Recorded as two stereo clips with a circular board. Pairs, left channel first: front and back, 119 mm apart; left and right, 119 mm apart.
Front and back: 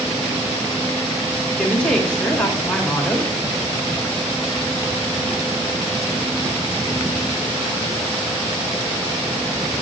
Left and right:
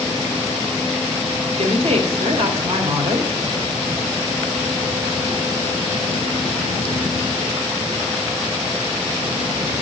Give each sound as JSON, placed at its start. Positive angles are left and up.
{"t": 1.6, "sound": "a woman speaking", "azimuth_deg": -80, "distance_m": 1.6}